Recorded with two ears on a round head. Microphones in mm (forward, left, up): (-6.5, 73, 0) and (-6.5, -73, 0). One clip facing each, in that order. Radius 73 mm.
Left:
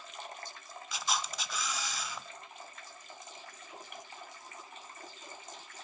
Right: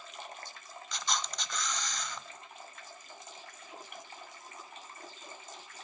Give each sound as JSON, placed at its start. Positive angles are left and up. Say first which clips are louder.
{"t": 0.9, "sound": "a camera shutter", "louder": "left 1 dB", "side_deg": 5, "distance_m": 0.6}